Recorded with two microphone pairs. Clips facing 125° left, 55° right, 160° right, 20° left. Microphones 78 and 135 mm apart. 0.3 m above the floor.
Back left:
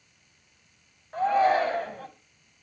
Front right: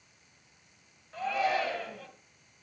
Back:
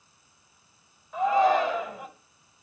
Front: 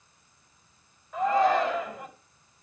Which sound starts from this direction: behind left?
A shout, at 1.1 s.